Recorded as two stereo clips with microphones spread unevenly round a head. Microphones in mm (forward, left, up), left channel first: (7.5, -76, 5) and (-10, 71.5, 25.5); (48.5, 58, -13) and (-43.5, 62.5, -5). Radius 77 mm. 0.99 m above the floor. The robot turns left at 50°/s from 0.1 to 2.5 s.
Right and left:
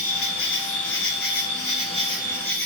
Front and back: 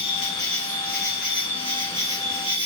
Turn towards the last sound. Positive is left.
turn(degrees=-165)